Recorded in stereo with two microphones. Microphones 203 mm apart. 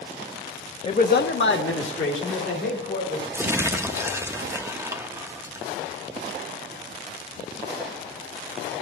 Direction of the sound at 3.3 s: 10° right (ahead or behind).